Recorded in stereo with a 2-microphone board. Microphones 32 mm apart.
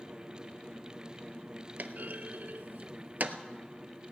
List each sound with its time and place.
1.8 s a clunk: 60° right (ahead or behind), 0.6 m